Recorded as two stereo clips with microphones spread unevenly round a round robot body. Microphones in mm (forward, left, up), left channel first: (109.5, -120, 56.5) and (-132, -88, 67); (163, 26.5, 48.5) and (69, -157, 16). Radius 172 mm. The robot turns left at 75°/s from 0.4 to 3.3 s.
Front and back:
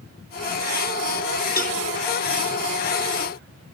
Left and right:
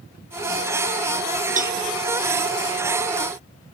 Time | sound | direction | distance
1.6 | a cowbell | 60° right | 1.3 m